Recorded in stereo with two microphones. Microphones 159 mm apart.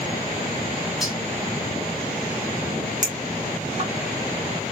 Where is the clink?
55° right (ahead or behind), 0.9 m.